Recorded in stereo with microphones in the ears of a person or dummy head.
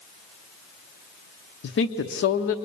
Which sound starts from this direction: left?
A woman speaking, at 1.6 s.